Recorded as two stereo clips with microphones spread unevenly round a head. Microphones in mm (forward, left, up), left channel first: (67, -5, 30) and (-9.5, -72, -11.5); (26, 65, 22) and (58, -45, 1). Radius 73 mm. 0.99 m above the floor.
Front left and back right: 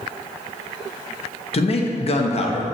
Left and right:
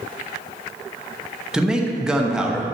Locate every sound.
1.5 s a man speaking: 5° left, 1.1 m